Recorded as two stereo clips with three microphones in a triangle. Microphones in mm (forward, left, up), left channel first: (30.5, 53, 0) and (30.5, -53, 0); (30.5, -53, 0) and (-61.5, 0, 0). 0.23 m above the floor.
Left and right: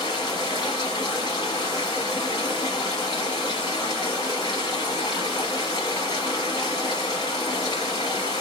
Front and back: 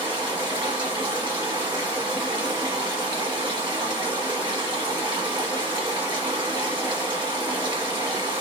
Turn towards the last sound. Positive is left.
turn(degrees=125)